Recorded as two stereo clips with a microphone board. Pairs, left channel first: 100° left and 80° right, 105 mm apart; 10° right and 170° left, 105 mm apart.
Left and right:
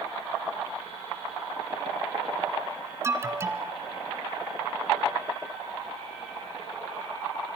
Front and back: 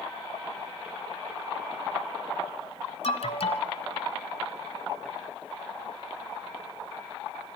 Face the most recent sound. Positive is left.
turn(degrees=-15)